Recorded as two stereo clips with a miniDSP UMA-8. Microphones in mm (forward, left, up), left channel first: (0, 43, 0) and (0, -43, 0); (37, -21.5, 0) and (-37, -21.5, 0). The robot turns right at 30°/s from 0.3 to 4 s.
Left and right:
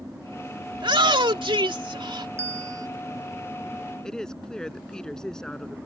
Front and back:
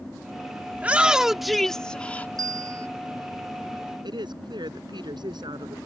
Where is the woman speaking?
170° left.